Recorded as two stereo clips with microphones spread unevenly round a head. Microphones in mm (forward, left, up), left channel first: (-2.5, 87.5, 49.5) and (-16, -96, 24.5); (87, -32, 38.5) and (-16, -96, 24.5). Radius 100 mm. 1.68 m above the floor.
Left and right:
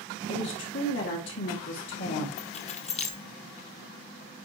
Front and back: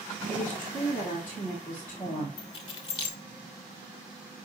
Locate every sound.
0.3 s a woman speaking: 110° left, 2 m
2.4 s keys jangling: 65° left, 0.7 m